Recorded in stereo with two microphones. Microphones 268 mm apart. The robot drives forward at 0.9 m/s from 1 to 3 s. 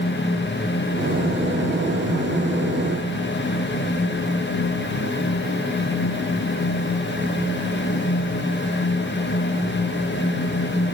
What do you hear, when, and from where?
Only background noise.